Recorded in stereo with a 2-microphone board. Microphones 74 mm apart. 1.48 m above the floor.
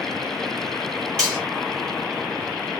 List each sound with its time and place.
1.2 s cutlery clinking: 10° left (ahead or behind), 2.5 m